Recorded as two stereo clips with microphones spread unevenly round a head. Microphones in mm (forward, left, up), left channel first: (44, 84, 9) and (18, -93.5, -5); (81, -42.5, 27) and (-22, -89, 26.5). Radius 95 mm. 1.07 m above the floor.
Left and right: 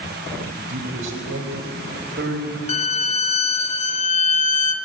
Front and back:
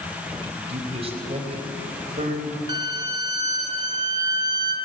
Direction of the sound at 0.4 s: 115° right.